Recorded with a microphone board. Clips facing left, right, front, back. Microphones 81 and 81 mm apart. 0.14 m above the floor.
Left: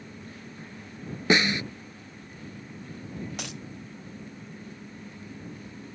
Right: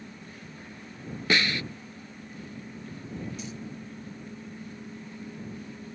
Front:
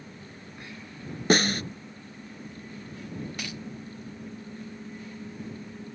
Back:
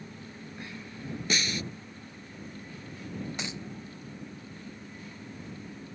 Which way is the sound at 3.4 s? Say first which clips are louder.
Even, even; 110° left.